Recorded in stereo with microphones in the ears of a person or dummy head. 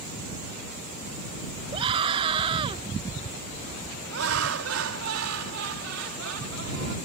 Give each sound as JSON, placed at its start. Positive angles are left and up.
{"t": 1.7, "sound": "a scream", "side_deg": -30}
{"t": 4.1, "sound": "laughter", "side_deg": -75}